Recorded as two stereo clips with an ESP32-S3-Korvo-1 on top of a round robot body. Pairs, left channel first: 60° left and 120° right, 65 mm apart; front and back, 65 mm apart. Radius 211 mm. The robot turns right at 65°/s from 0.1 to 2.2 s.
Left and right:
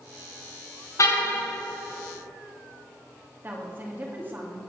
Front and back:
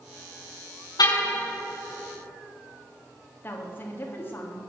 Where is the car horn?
15° left, 6.5 m; by 1.4 s 45° left, 6.5 m.